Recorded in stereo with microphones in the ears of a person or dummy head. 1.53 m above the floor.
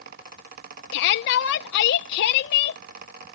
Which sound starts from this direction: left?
A shout, at 0.9 s.